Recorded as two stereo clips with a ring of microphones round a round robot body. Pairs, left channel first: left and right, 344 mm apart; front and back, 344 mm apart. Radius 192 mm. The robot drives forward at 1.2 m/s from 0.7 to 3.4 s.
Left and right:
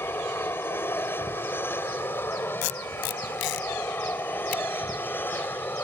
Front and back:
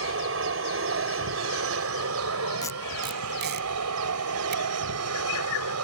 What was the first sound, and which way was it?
An aircraft, 170° left.